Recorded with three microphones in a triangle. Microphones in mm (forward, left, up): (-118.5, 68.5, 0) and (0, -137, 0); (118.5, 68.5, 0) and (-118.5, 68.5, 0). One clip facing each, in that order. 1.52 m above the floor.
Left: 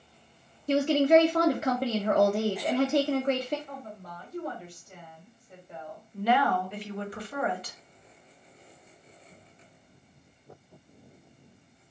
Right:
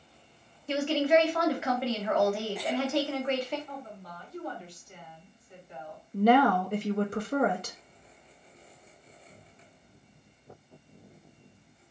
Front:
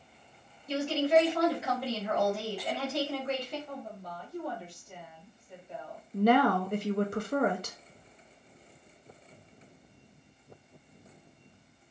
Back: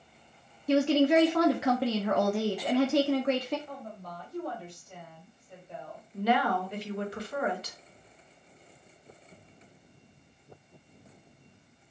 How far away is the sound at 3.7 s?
About 1.9 m.